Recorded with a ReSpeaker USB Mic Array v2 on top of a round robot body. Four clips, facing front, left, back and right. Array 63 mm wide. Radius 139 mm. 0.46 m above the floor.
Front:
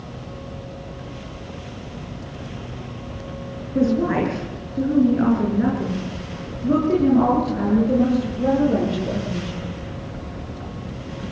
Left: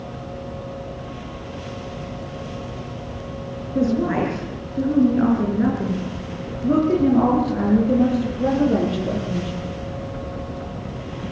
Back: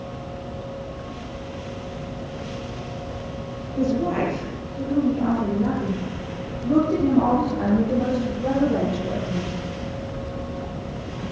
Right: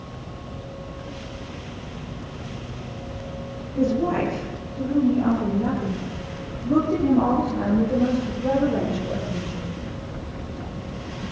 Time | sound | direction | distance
3.8 | a woman speaking | 40° left | 8 m